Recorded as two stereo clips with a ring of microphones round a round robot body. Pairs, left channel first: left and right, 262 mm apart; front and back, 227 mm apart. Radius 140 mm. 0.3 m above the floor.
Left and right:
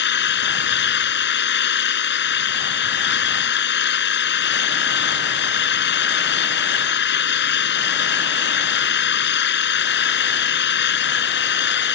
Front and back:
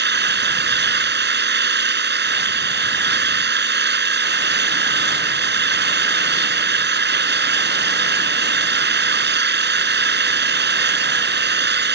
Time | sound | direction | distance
0.0 | an engine running | 140° left | ?